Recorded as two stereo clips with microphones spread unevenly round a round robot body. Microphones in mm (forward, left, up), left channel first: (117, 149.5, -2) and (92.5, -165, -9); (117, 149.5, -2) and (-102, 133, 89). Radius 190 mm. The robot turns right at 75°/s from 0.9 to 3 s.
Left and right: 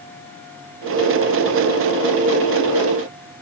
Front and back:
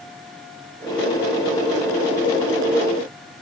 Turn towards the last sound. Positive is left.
No sound to turn to.